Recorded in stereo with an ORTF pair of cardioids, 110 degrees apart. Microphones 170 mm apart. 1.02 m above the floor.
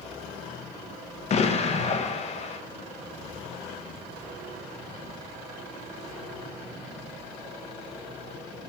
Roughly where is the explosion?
Ahead left.